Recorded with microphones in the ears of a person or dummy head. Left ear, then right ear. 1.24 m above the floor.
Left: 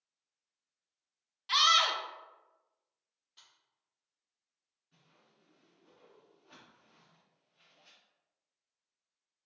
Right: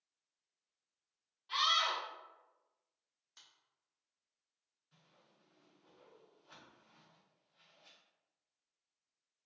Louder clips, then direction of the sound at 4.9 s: Left 1 dB; 50° right (ahead or behind).